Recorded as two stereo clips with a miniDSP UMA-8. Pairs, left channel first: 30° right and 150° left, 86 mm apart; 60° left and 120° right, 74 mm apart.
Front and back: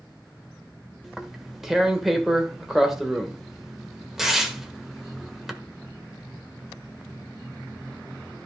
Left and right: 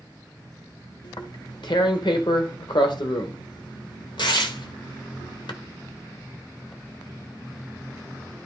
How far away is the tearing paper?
About 1.2 m.